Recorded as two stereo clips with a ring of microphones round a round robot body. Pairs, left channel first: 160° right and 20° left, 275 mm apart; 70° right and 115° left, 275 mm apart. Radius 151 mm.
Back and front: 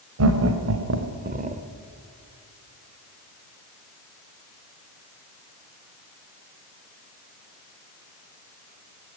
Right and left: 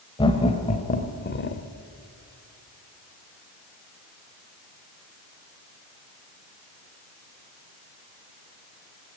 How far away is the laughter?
About 2.0 m.